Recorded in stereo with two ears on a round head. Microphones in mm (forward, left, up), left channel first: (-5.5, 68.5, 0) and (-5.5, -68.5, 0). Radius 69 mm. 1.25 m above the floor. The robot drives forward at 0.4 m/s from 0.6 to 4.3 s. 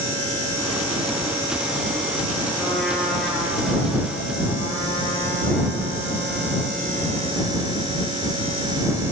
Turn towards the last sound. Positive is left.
turn(degrees=5)  # may be behind; listen again after turning